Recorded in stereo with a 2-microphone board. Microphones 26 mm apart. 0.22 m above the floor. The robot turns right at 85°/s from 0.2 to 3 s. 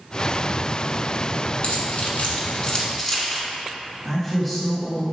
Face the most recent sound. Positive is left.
turn(degrees=5)  # may be behind; listen again after turning